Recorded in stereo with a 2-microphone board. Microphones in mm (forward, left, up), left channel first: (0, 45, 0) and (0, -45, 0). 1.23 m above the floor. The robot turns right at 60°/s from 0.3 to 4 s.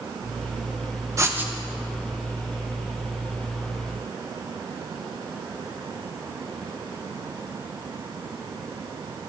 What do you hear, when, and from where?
1.2 s writing: 35° right (ahead or behind), 0.7 m; by 1.5 s 15° right (ahead or behind), 0.7 m